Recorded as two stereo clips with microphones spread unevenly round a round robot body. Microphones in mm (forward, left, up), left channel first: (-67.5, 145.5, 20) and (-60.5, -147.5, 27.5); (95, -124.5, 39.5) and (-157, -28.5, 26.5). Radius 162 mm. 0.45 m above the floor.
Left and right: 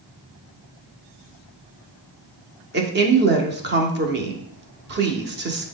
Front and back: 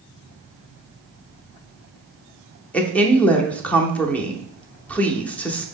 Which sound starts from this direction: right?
A woman speaking, at 2.7 s.